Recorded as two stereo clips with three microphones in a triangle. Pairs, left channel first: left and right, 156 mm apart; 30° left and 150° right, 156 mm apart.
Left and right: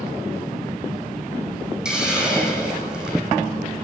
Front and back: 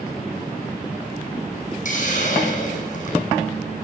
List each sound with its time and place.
1.9 s a hiss: 5° right, 7.5 m